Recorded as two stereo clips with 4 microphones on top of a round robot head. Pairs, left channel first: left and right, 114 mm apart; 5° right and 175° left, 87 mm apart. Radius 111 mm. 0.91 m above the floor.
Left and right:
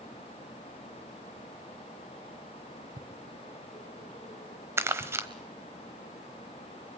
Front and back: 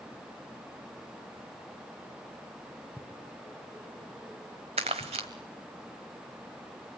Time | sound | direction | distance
3.0 | footsteps | 80° right | 1.7 m
4.8 | crumpling | 155° right | 1.0 m